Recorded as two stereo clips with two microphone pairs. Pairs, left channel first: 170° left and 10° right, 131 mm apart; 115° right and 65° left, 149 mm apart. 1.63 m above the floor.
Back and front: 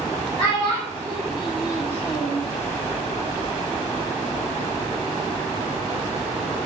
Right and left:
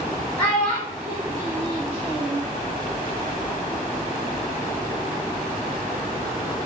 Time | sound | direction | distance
0.4 | a child speaking | 165° right | 1.0 m